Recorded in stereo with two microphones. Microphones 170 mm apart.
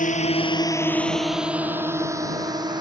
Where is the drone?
50° left (ahead or behind); by 2.8 s 25° right (ahead or behind).